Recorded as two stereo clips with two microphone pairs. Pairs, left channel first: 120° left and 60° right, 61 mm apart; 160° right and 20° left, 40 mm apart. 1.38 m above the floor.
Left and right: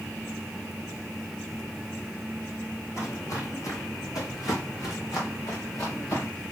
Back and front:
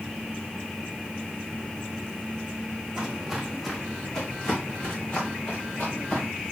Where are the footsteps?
95° left, 2.5 m; by 6.3 s 150° left, 5.5 m.